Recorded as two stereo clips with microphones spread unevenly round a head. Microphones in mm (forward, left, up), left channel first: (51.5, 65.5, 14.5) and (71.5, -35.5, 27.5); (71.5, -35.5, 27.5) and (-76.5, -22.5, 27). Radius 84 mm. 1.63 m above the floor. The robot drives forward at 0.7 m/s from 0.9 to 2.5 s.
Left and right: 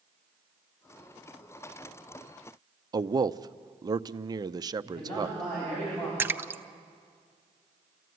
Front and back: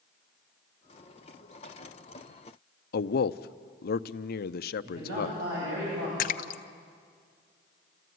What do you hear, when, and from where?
2.9 s a man speaking: 30° right, 0.6 m
4.8 s a man speaking: 170° right, 9.5 m
6.2 s a splash: 20° right, 0.6 m